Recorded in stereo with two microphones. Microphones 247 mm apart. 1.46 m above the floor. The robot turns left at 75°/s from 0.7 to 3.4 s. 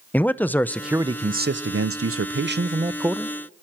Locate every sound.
0.1 s a man speaking: 10° left, 0.6 m; by 3.4 s 170° left, 0.6 m